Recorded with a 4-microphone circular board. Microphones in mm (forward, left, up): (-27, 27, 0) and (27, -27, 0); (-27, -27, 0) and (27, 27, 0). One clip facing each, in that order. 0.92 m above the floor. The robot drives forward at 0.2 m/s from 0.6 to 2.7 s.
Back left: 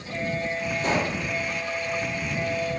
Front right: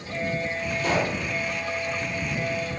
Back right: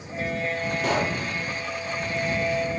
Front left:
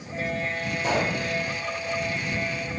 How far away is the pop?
About 5.5 m.